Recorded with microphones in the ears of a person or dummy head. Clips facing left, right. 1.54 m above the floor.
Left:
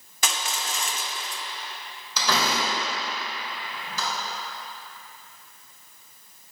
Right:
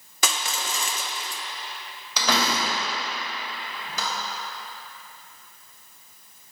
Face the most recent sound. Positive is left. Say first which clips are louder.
# right 1 dB
turn(degrees=-65)  # may be behind; listen again after turning